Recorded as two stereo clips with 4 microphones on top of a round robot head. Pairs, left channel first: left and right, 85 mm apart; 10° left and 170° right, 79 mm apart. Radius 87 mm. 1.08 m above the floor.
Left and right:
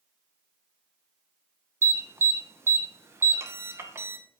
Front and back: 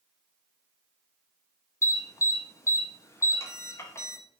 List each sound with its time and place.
1.8 s an alarm: 40° right, 0.5 m